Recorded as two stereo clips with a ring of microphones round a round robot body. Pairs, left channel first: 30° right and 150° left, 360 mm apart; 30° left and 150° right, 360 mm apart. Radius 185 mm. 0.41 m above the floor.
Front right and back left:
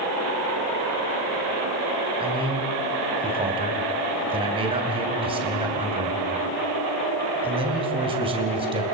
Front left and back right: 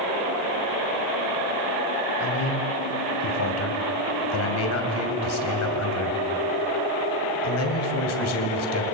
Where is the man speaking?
75° left, 3 m.